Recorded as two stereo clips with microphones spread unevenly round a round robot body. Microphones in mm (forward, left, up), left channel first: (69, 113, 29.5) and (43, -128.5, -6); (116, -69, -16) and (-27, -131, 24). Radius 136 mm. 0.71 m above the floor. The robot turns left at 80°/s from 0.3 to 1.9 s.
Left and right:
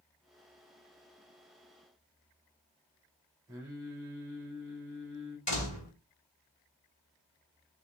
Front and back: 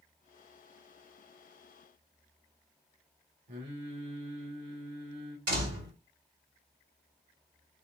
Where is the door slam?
150° left, 2.5 m.